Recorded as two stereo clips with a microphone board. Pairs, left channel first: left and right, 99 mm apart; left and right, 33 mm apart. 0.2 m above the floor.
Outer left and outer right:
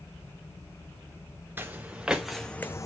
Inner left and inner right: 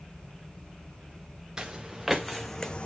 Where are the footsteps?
20° right (ahead or behind), 1.3 m; by 2.9 s 35° left (ahead or behind), 0.6 m.